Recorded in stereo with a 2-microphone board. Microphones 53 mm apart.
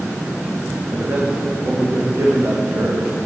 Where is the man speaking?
40° right (ahead or behind), 9.5 m; by 3.2 s 45° right (ahead or behind), 8 m.